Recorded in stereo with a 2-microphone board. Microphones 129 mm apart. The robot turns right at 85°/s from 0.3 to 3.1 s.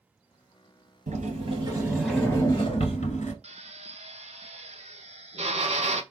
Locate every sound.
1.1 s a sliding door: 90° right, 1.1 m; by 3.3 s 80° left, 1.1 m
3.4 s a drill: 55° right (ahead or behind), 0.6 m